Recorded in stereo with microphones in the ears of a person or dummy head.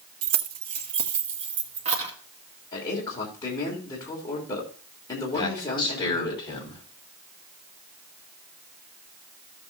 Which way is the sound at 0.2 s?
50° right (ahead or behind).